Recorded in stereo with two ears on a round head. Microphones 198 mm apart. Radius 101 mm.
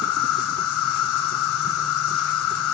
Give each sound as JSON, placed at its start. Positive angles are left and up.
{"t": 0.0, "sound": "an insect", "side_deg": 75, "distance_m": 1.0}